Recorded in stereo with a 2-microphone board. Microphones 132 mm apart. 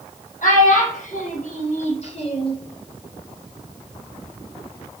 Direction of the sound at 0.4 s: 70° left (ahead or behind).